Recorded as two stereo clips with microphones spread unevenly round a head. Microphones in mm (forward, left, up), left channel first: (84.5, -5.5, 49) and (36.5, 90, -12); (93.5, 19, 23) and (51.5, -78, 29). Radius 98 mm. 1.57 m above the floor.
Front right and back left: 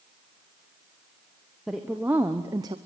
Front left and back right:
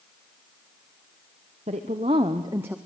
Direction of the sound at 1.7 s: 160° right.